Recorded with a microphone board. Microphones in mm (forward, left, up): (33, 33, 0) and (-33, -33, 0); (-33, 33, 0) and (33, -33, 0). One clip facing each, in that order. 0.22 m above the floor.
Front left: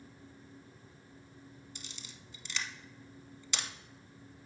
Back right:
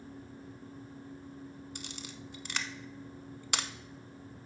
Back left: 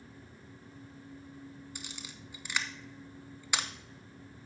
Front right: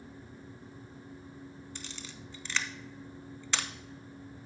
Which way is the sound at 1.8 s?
150° right.